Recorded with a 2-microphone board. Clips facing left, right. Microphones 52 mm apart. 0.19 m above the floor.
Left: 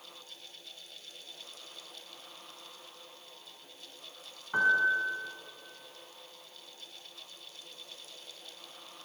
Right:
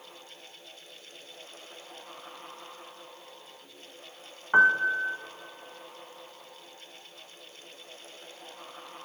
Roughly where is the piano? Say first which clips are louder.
Right 5 dB; right.